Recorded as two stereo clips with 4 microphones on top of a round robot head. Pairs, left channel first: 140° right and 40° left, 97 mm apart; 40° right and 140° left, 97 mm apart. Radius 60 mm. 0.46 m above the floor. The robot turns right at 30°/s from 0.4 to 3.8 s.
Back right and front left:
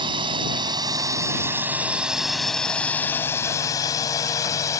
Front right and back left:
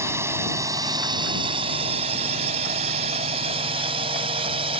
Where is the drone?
75° left; by 4.8 s 160° left.